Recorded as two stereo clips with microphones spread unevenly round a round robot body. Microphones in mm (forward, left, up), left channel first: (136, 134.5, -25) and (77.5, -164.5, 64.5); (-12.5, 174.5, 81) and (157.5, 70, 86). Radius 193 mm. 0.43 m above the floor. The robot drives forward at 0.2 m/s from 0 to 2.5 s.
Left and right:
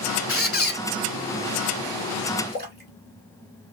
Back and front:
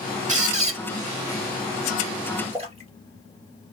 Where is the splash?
45° right, 1.5 m.